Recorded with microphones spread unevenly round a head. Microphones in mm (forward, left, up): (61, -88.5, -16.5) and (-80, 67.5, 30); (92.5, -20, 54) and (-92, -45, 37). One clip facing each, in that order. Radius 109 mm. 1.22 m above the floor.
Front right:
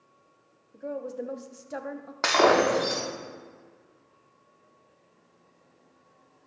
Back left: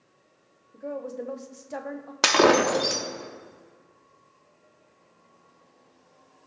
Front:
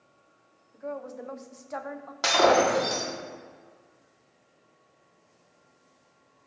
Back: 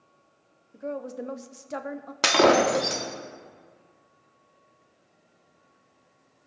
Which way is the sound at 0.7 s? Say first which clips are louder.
Even, back 3 dB; 125° right.